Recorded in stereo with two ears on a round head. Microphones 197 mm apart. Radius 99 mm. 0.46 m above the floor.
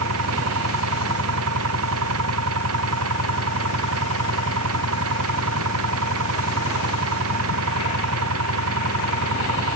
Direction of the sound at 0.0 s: 70° right (ahead or behind).